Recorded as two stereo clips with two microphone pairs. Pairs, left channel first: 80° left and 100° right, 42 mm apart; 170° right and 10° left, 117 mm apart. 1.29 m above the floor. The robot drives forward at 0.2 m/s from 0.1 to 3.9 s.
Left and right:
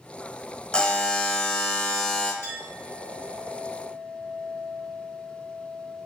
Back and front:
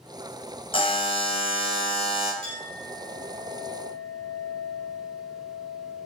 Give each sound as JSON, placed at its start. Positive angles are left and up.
{"t": 0.7, "sound": "a buzzer", "azimuth_deg": 150, "distance_m": 0.5}
{"t": 2.4, "sound": "a clink", "azimuth_deg": -95, "distance_m": 1.5}